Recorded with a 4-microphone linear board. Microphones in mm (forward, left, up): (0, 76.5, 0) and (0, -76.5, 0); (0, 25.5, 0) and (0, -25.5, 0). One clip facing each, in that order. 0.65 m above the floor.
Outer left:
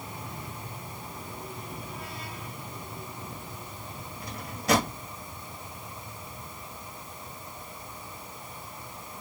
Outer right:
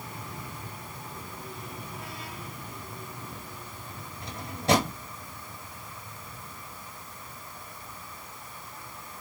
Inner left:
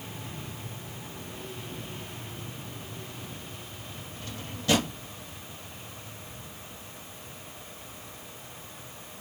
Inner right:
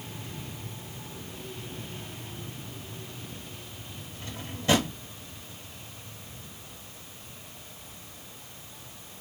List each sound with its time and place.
4.2 s a drawer: 25° right (ahead or behind), 1.2 m